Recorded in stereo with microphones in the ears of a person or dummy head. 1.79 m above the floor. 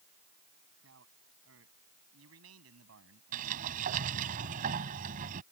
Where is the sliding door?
45° right (ahead or behind).